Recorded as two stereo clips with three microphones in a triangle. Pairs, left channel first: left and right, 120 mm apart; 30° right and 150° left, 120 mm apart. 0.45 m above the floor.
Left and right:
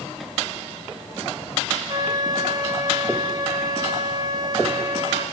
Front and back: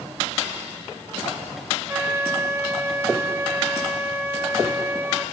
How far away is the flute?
About 1.6 m.